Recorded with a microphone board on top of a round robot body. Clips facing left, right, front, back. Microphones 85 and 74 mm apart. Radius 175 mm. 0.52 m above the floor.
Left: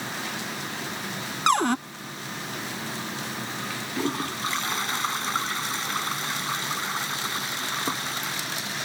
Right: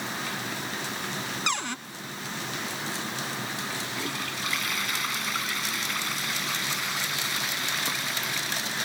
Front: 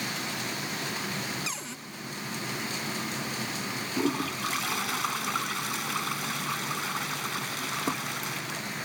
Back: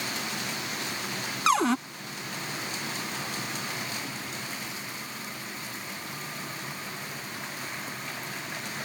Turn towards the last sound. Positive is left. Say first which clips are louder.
# left 5 dB, front 8 dB
turn(degrees=30)